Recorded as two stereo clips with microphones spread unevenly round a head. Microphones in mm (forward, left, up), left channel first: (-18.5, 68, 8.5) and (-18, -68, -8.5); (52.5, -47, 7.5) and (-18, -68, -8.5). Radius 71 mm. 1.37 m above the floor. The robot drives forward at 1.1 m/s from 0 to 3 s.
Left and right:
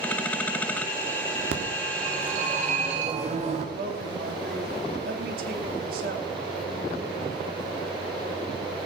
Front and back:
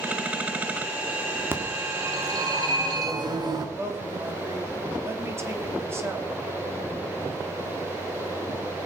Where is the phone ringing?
100° right, 2.5 m; by 3.6 s 135° right, 3 m.